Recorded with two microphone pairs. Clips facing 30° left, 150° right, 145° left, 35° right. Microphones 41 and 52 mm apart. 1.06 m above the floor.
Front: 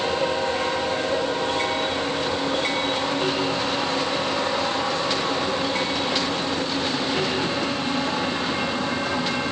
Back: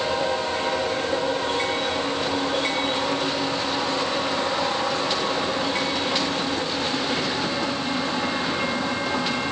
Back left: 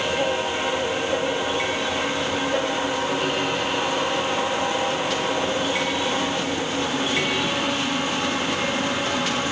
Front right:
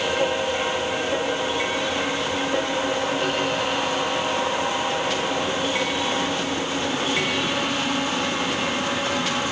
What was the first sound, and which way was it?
Only background noise.